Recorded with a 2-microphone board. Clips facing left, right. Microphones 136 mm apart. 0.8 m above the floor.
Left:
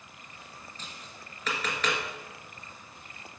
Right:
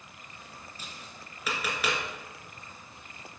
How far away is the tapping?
About 1.9 m.